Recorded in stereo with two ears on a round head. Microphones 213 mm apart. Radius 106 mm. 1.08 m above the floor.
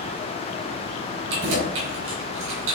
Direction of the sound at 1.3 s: 60° right (ahead or behind).